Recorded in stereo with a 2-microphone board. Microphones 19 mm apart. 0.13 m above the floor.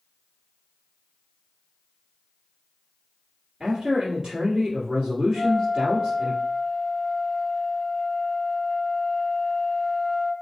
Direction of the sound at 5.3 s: 20° left (ahead or behind).